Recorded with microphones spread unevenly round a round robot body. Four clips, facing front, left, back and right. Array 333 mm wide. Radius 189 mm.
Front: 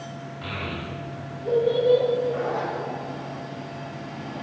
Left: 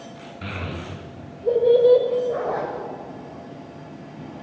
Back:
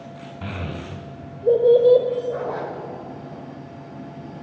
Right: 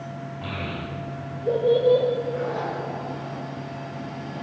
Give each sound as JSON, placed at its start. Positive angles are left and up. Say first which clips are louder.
{"t": 0.4, "sound": "a child speaking", "louder": "left 1 dB, back 1 dB", "azimuth_deg": 175, "distance_m": 2.5}
{"t": 2.3, "sound": "a zipper", "louder": "left 2 dB, front 1 dB", "azimuth_deg": 90, "distance_m": 2.0}